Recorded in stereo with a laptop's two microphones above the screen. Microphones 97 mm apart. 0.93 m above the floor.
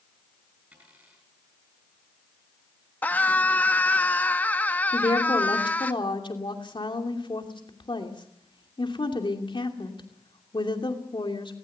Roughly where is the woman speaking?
Left.